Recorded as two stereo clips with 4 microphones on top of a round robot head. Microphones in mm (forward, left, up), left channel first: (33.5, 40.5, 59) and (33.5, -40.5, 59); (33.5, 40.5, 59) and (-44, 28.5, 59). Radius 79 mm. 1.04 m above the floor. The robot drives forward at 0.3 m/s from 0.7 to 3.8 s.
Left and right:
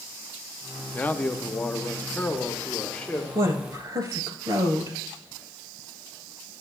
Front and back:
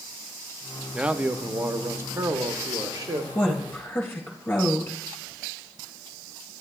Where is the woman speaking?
55° right, 1.9 m; by 5.0 s 60° right, 1.8 m.